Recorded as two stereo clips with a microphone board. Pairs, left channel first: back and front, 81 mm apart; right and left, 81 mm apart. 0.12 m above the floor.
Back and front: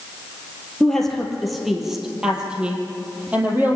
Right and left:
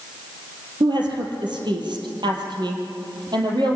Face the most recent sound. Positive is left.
turn(degrees=65)